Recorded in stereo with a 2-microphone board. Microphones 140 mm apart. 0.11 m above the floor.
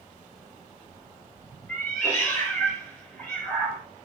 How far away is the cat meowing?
About 1.0 m.